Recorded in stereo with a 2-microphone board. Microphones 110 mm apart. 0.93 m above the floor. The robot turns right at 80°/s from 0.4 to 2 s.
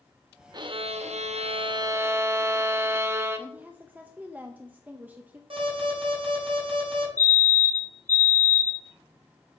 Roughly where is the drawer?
No drawer in this recording.